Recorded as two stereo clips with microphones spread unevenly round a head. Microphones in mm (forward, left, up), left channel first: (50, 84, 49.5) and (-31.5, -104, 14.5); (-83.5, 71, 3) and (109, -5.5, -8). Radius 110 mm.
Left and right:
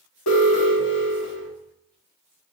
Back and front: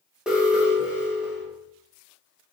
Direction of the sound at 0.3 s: 65° left.